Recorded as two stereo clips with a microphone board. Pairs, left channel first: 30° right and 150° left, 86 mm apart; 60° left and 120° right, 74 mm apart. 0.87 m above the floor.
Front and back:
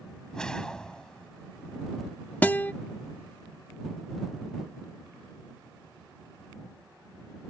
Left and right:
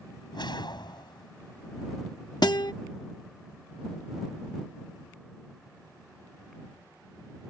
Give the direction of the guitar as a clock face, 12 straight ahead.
11 o'clock.